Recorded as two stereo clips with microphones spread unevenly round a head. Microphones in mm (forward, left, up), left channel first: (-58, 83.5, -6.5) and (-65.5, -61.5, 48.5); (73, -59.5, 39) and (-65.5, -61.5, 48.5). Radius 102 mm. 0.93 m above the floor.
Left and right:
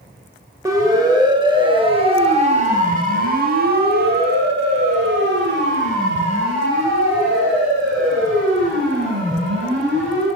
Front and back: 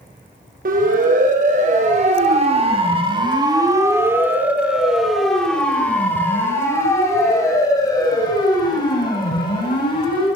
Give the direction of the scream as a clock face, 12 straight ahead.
No scream in this recording.